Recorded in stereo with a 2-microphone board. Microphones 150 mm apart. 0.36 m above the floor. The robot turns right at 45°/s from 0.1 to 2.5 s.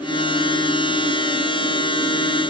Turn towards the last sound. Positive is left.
No sound to turn to.